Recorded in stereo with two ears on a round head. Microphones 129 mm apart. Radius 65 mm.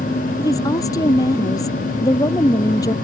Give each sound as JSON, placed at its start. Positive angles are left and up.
{"t": 0.4, "sound": "a woman speaking", "side_deg": 25}